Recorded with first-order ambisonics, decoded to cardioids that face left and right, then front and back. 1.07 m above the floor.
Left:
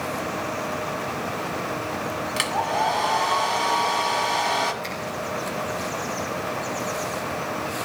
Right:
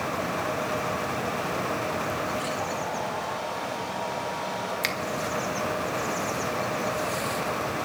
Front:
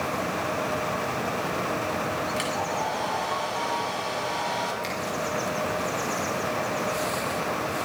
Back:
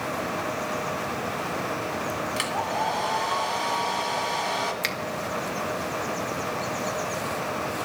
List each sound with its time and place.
2.4 s a hair dryer: 105° left, 2.5 m
4.8 s a finger snap: 130° right, 1.6 m